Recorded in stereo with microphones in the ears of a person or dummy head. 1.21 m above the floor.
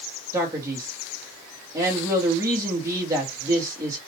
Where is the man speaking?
20° right (ahead or behind), 1.4 m.